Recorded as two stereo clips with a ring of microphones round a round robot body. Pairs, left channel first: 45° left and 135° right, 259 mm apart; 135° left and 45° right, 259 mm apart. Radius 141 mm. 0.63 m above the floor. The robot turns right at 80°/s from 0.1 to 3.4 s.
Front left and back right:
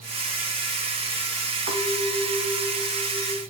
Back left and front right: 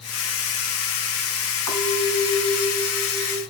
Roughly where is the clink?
Behind left.